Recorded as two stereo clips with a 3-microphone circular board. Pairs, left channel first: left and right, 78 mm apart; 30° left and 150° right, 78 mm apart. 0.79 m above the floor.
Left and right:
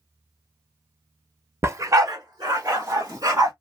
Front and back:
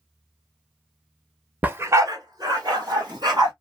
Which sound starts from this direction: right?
A dog barking, at 1.6 s.